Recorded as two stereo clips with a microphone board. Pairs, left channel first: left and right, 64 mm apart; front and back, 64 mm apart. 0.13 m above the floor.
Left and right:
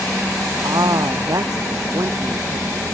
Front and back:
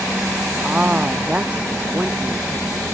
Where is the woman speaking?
110° right.